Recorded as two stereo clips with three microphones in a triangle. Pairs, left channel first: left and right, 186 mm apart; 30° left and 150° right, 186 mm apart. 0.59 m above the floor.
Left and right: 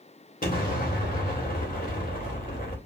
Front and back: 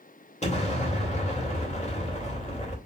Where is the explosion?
70° left, 2.0 m.